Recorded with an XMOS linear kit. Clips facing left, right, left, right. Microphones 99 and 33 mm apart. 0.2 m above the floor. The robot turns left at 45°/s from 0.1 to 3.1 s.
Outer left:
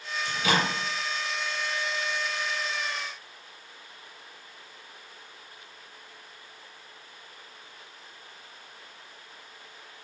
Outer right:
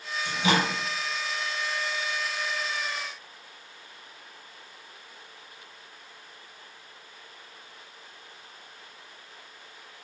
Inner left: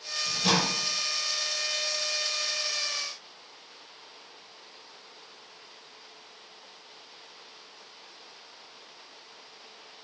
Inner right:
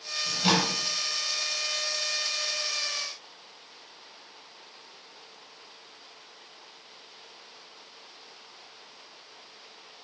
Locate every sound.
0.2 s a microwave: 25° right (ahead or behind), 0.9 m; by 0.7 s 30° right (ahead or behind), 0.9 m